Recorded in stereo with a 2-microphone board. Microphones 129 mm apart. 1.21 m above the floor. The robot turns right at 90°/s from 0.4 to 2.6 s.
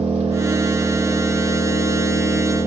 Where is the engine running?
70° right, 1.3 m; by 2.7 s 125° left, 1.3 m.